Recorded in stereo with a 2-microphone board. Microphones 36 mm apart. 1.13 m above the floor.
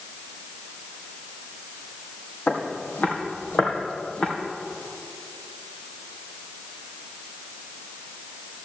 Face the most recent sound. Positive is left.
turn(degrees=40)  # may be behind; listen again after turning